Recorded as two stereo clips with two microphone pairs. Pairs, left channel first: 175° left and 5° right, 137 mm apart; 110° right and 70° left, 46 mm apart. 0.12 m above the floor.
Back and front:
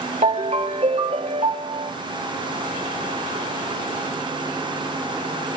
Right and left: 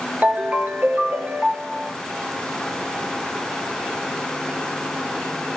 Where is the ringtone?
25° left, 1.0 m.